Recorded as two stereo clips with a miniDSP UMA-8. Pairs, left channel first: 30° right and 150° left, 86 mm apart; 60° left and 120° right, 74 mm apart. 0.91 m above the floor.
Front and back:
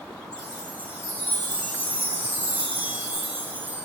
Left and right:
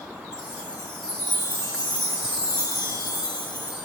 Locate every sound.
0.3 s a chime: 80° left, 4 m